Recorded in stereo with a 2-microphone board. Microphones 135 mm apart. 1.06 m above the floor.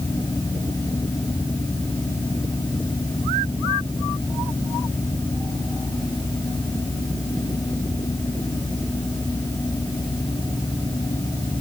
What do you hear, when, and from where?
Only background noise.